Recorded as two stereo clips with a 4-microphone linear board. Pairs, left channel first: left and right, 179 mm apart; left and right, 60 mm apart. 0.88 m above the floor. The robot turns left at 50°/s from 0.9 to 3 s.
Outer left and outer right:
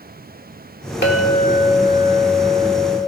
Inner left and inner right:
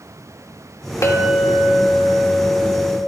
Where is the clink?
75° left, 1.9 m; by 3.0 s 20° right, 1.9 m.